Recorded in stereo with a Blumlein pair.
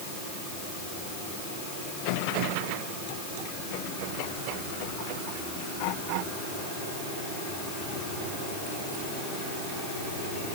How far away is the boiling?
No boiling in this recording.